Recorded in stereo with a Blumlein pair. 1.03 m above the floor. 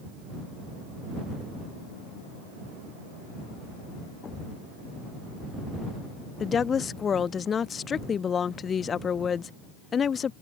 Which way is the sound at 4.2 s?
20° left.